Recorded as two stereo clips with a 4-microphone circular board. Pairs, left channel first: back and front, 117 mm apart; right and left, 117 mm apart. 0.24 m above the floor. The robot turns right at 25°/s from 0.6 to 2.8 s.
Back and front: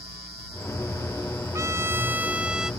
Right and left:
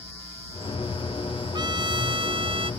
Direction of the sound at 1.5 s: 55° left.